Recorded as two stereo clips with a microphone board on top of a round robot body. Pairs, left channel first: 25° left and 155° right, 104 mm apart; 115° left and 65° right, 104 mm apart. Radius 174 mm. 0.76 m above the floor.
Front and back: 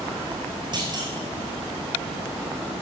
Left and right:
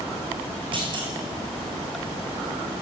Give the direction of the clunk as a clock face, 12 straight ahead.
4 o'clock.